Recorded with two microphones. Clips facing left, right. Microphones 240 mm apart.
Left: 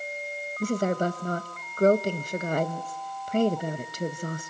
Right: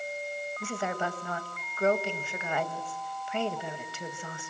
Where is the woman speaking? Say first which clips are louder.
Left 9 dB; 40° left (ahead or behind), 1.1 m.